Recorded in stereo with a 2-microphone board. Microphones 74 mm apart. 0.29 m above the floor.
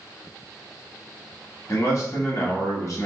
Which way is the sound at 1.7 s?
45° left (ahead or behind).